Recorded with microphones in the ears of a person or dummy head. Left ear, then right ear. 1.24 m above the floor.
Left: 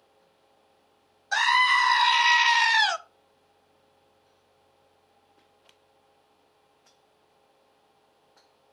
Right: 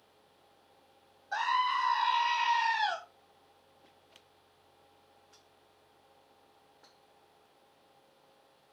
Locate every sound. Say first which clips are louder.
1.3 s a scream: left 9 dB; 65° left (ahead or behind), 0.7 m